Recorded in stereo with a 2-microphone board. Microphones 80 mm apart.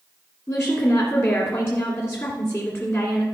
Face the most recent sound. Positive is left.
turn(degrees=35)  # may be behind; listen again after turning